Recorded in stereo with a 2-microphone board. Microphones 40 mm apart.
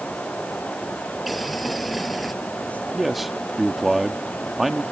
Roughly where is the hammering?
I don't hear hammering.